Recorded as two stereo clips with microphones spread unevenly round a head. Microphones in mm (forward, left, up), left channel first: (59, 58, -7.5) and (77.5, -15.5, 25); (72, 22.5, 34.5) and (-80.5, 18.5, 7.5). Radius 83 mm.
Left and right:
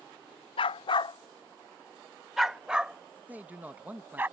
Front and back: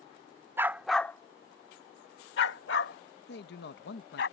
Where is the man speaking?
5° left.